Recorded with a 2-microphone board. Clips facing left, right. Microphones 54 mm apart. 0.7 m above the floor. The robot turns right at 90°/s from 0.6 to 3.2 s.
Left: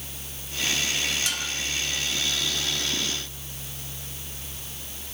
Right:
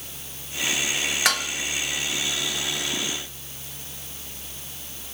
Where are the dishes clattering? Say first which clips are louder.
Right 7 dB; 80° right, 1.8 m.